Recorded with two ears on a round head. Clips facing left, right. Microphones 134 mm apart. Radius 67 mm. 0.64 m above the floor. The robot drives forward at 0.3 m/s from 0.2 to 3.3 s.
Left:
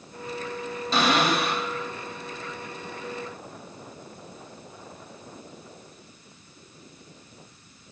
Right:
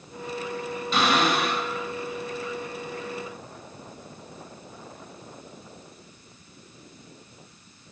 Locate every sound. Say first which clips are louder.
0.9 s a cupboard door: even; 30° left (ahead or behind), 3 m; by 1.7 s 35° left (ahead or behind), 2.5 m